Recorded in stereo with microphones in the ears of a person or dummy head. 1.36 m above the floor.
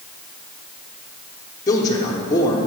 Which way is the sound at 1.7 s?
20° left (ahead or behind).